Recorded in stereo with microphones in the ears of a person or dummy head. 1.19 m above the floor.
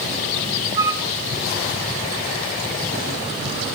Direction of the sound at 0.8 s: 15° right (ahead or behind).